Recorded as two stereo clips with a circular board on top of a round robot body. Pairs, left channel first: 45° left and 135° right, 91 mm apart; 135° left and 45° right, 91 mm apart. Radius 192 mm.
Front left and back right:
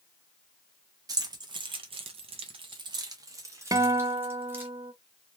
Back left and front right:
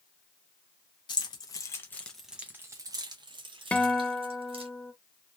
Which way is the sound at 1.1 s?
175° left.